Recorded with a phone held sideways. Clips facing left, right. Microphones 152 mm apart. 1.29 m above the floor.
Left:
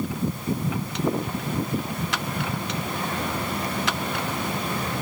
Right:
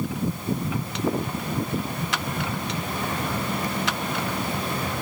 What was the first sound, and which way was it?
Only background noise.